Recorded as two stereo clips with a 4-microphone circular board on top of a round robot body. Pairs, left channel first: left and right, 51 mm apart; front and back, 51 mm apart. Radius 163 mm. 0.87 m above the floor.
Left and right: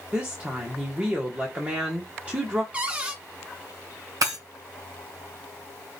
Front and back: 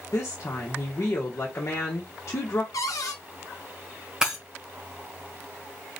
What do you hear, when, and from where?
0.1 s a woman speaking: 35° right, 1.4 m
2.7 s a cupboard door: 20° right, 0.6 m
4.2 s breaking glass: 100° right, 1.6 m